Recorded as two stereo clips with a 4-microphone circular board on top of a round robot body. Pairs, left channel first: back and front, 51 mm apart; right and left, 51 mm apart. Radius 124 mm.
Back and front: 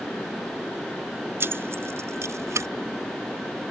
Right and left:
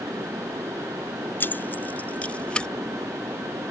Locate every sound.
1.4 s keys jangling: 45° right; by 2.7 s 20° right